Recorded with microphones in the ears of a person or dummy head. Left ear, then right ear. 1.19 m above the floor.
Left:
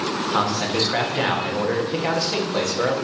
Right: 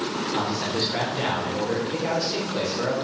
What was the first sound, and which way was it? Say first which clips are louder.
A man speaking: left 6 dB; 45° left (ahead or behind).